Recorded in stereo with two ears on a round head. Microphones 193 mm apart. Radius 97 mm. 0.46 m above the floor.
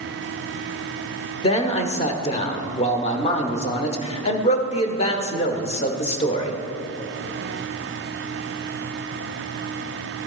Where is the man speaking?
30° left (ahead or behind), 1.0 m.